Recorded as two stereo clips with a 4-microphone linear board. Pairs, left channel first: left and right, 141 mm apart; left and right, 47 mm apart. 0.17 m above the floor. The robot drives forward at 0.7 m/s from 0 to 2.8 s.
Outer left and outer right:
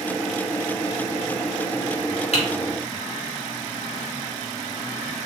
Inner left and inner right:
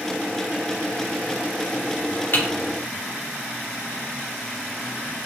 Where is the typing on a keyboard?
50° left (ahead or behind), 2.5 m; by 5.3 s 45° left (ahead or behind), 2.5 m.